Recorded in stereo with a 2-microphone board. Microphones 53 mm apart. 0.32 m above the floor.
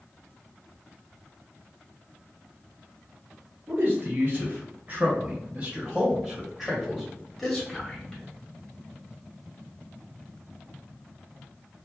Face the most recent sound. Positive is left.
turn(degrees=15)  # may be behind; listen again after turning